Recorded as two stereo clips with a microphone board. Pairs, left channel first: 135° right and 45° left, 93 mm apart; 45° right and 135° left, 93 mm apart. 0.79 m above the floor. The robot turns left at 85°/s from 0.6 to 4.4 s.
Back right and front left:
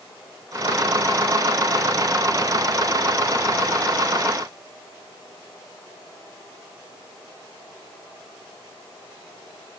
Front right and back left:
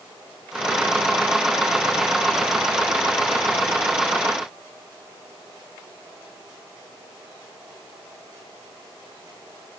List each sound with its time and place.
Only background noise.